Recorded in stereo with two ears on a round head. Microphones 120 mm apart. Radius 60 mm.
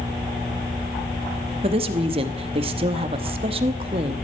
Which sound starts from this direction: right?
A woman speaking, at 1.6 s.